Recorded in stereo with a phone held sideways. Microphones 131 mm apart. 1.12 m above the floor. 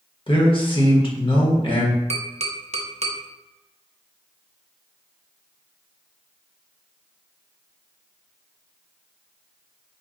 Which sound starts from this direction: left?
A man speaking, at 0.3 s.